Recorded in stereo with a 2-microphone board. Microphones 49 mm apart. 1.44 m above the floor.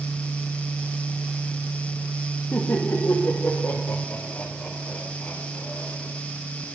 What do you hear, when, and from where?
2.5 s laughter: 60° left (ahead or behind), 1.7 m; by 6.0 s 30° left (ahead or behind), 4 m